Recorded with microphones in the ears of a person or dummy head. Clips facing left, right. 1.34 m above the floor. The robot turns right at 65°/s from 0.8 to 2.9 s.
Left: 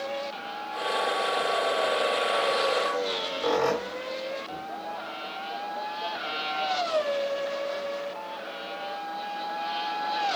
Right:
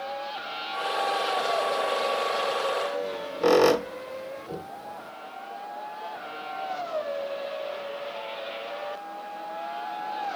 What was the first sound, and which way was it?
A squeak, 50° right (ahead or behind).